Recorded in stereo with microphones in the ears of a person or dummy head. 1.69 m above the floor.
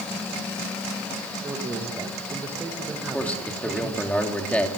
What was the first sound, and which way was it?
A man speaking, 10° right (ahead or behind).